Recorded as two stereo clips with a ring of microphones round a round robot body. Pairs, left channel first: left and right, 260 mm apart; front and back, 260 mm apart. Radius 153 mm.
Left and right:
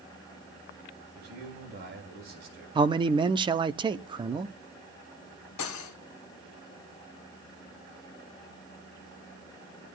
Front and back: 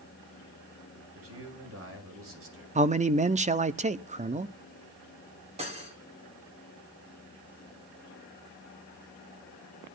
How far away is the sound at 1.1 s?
About 5.5 m.